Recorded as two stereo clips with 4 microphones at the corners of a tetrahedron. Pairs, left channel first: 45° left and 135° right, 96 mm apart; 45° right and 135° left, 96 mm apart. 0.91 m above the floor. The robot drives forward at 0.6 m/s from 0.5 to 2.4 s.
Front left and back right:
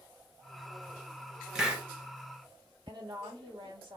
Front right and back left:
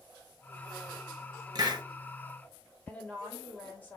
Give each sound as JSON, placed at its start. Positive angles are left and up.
{"t": 1.6, "sound": "a hiss", "azimuth_deg": 140, "distance_m": 0.9}
{"t": 2.9, "sound": "a woman speaking", "azimuth_deg": -115, "distance_m": 1.9}